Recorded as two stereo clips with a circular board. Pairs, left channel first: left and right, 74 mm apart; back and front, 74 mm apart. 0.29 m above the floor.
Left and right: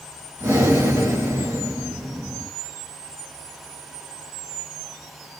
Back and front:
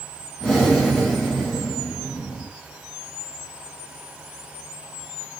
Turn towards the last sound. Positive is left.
turn(degrees=-100)